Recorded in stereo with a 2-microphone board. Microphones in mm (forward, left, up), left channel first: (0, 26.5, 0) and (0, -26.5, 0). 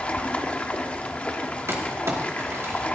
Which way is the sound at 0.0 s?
25° left (ahead or behind).